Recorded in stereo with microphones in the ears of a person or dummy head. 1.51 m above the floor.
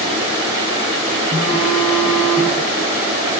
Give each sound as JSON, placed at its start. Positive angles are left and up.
{"t": 1.3, "sound": "a phone buzzing", "side_deg": -50, "distance_m": 3.0}